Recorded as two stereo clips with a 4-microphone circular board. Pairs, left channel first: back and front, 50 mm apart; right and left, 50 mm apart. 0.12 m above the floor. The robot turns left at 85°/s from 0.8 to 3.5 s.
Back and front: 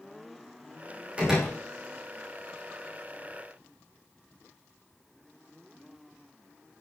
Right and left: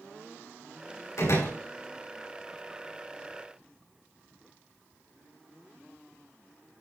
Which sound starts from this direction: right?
A door slam, at 1.2 s.